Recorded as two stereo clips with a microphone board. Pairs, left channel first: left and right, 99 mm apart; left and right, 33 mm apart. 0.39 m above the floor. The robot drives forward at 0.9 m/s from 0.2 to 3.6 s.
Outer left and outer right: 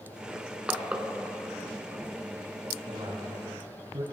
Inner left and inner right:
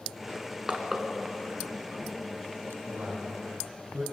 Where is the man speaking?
75° right (ahead or behind), 4.5 m; by 4.0 s 80° right, 4.5 m.